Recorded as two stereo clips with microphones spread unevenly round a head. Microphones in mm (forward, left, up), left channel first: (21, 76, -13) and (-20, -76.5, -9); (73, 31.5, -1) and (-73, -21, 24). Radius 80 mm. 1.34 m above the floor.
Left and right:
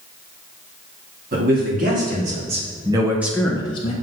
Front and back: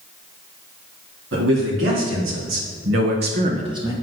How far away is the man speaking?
About 3.5 m.